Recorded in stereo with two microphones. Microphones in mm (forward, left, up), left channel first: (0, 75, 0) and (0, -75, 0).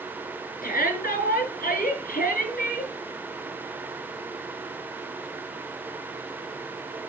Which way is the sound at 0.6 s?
75° left (ahead or behind).